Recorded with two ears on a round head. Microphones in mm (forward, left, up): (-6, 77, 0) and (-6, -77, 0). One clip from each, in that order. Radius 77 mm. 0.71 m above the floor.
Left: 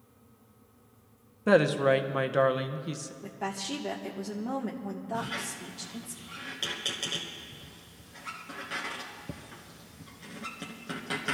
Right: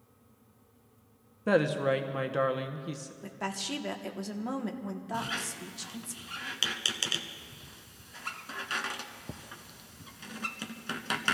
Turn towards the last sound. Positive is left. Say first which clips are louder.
# right 1 dB
turn(degrees=-60)  # may be behind; listen again after turning